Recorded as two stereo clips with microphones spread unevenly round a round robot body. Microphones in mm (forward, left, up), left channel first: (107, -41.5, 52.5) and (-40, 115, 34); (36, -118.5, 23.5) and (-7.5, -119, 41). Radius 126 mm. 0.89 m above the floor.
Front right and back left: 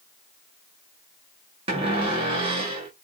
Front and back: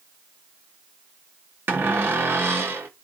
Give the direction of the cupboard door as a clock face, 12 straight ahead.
5 o'clock.